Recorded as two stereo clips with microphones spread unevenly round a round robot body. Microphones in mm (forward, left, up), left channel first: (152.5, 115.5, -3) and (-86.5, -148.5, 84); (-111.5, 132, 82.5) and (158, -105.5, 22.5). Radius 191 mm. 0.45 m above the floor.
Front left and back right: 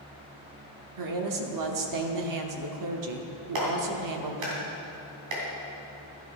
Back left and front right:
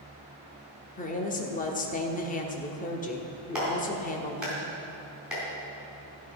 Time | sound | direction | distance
1.0 | a woman speaking | 150° right | 1.3 m
3.5 | a clap | 125° right | 3.5 m